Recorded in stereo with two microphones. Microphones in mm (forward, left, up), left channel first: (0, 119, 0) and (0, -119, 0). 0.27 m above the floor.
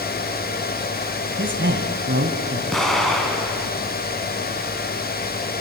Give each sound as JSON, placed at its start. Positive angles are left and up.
{"t": 1.4, "sound": "a man speaking", "side_deg": -50, "distance_m": 1.8}
{"t": 2.7, "sound": "an explosion", "side_deg": 0, "distance_m": 3.0}